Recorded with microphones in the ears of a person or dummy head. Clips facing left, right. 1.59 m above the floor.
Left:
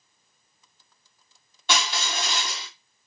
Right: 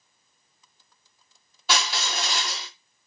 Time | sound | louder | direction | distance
1.7 | crushing | even | 5° right (ahead or behind) | 1.0 m